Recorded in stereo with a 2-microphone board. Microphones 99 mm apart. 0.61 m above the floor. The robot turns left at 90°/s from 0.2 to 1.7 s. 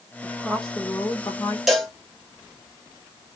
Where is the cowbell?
5° right (ahead or behind), 0.9 m; by 1.9 s centre (ahead or behind), 0.9 m.